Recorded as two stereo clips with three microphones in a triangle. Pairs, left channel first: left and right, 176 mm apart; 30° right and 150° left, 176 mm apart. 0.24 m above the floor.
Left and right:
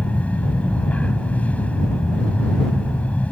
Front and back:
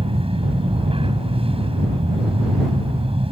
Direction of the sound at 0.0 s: 165° left.